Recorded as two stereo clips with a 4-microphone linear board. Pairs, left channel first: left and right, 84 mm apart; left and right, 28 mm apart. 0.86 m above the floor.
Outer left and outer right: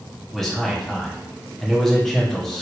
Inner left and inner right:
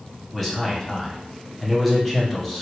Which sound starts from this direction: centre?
A man speaking, at 0.3 s.